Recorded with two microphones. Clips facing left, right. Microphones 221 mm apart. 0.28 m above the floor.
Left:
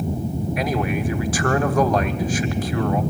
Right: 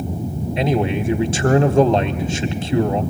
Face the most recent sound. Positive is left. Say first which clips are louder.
# right 6 dB
turn(degrees=-25)  # may be behind; listen again after turning